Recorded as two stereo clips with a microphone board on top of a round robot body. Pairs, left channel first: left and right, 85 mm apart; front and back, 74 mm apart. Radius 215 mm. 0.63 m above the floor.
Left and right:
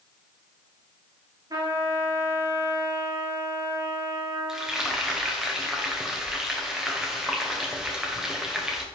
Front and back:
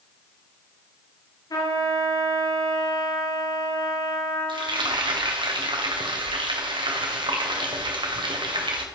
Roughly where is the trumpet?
Ahead right.